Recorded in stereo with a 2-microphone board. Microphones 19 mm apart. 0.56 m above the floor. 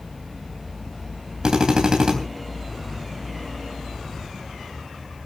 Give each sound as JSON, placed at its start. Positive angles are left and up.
{"t": 1.4, "sound": "a drill", "side_deg": -50, "distance_m": 3.5}